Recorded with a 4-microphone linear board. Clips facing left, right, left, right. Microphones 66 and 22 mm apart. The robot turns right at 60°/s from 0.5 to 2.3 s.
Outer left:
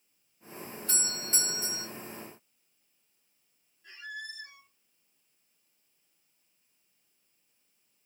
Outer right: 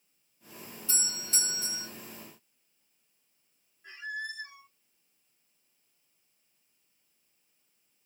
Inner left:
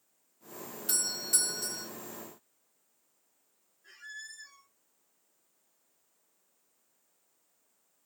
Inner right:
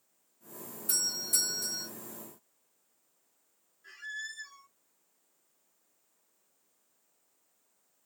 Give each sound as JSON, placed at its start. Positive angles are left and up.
{"t": 0.9, "sound": "a doorbell", "azimuth_deg": 105, "distance_m": 1.4}
{"t": 3.8, "sound": "a squeak", "side_deg": -30, "distance_m": 1.3}